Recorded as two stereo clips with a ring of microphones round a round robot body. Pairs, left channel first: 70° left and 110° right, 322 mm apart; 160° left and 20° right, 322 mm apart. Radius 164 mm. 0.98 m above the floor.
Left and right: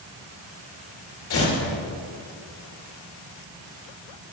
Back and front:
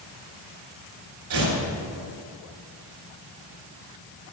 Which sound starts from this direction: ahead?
Tearing paper, at 1.3 s.